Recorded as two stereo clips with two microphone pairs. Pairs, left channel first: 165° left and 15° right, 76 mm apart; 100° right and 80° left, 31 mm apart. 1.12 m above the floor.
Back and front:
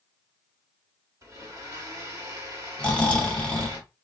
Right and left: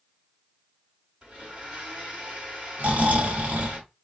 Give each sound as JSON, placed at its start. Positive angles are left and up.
{"t": 1.2, "sound": "a blender", "azimuth_deg": 25, "distance_m": 1.6}
{"t": 2.8, "sound": "snoring", "azimuth_deg": 90, "distance_m": 0.9}